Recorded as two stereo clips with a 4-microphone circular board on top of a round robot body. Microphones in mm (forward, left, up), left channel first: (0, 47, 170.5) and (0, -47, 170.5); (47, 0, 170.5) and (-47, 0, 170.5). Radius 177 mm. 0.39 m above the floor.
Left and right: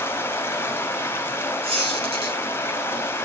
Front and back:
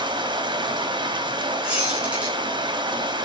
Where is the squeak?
100° right, 4 m.